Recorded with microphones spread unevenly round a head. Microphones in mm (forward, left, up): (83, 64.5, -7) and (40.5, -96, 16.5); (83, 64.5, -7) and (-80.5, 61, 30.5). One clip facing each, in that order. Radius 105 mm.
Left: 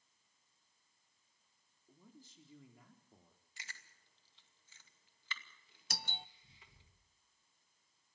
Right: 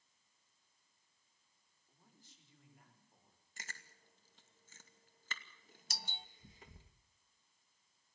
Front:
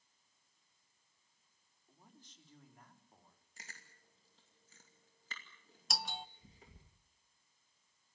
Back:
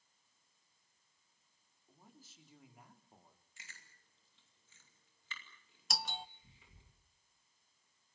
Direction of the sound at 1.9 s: 95° left.